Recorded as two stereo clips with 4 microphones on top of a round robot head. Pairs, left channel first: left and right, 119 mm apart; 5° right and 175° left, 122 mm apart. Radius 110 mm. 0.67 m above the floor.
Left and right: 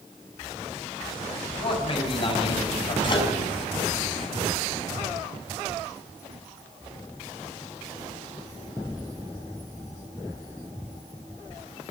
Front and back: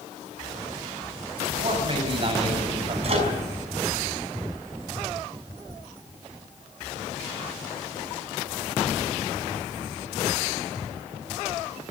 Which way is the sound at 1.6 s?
130° left.